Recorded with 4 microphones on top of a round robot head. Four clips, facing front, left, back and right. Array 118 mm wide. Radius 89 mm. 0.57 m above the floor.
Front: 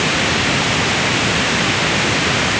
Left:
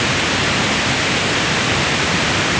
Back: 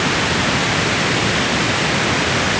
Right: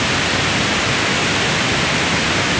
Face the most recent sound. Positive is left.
No sound to turn to.